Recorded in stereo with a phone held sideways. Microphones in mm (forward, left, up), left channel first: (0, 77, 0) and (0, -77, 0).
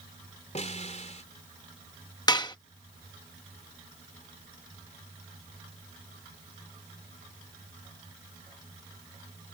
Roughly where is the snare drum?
Left.